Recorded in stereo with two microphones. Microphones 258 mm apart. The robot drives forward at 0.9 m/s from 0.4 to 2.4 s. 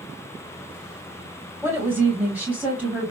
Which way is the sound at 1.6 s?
10° right (ahead or behind).